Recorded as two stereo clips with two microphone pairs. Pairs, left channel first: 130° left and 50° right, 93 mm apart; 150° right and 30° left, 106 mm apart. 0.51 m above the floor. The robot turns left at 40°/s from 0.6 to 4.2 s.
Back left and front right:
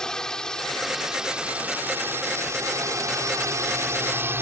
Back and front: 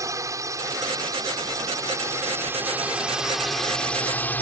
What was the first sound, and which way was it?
A drone, 55° left.